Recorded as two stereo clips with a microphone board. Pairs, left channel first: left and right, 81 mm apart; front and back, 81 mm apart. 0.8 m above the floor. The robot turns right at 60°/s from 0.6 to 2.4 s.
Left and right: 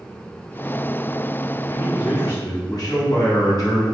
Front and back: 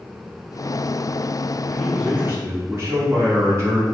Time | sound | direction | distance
1.7 | a man speaking | 85° left | 1.5 m